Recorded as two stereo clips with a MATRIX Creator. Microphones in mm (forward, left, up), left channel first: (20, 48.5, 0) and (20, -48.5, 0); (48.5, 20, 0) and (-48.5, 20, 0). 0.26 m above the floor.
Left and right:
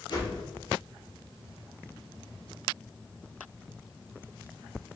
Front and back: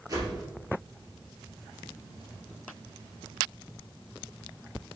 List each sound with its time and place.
0.1 s a whoosh: 130° left, 1.3 m